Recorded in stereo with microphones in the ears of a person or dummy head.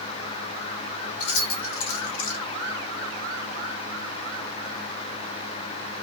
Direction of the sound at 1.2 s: 75° left (ahead or behind).